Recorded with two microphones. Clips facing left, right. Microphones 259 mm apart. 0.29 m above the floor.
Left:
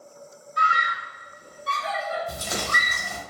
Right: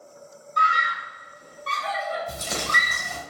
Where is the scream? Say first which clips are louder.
Even; 5° left (ahead or behind), 1.0 m.